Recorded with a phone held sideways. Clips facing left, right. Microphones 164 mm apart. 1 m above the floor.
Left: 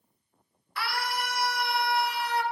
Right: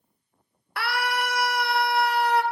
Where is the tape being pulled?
No tape being pulled in this recording.